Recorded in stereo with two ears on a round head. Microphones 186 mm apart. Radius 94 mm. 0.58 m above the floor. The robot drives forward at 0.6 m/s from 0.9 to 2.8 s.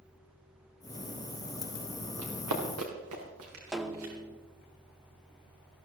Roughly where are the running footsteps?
Right.